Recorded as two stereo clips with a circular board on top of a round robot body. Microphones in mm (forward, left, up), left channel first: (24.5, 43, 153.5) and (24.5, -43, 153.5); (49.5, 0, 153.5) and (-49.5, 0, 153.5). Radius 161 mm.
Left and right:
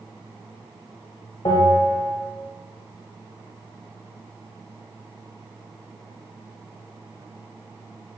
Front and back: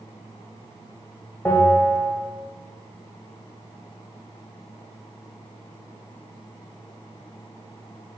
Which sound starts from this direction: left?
A bell, at 1.4 s.